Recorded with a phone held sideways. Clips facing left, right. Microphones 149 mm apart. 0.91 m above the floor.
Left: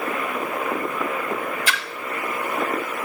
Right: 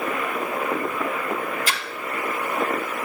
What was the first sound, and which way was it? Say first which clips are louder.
A splash: left 1 dB; 40° right (ahead or behind).